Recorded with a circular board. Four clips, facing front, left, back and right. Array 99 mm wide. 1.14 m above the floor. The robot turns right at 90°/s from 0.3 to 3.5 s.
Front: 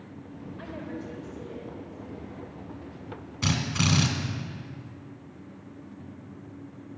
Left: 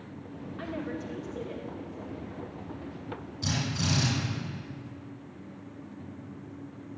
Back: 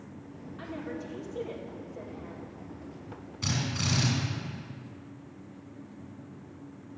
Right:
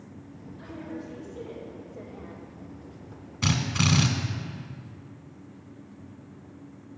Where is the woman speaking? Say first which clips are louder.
Left 3 dB, even; 105° left, 3.5 m; by 2.4 s 90° right, 3.5 m.